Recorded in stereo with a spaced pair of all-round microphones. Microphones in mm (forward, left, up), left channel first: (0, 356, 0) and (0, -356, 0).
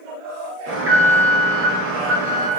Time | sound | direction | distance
0.7 | an alarm | 20° right (ahead or behind) | 1.0 m